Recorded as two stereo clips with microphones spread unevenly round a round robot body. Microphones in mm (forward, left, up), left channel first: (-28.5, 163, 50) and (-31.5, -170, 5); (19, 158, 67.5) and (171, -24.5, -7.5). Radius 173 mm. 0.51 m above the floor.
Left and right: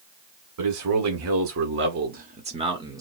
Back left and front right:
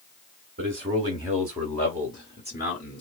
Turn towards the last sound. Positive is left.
turn(degrees=-165)